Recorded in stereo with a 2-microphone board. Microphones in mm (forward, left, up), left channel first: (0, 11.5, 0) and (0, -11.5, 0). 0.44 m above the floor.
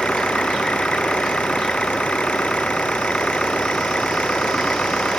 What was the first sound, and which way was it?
An engine running, 60° left (ahead or behind).